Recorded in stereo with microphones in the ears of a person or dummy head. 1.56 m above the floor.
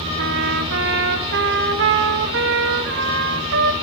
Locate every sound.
0.2 s a trumpet: 60° right (ahead or behind), 1.4 m